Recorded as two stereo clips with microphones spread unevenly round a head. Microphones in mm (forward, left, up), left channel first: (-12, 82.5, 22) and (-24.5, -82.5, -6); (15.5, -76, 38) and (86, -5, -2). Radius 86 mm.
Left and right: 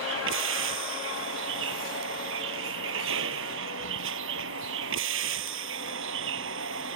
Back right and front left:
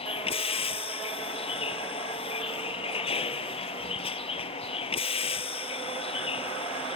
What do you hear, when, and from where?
0.0 s a vehicle: 105° right